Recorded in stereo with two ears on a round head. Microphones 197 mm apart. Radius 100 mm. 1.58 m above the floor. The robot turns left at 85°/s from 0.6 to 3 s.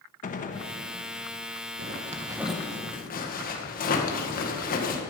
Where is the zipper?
120° right, 1.7 m; by 5.0 s 140° left, 1.7 m.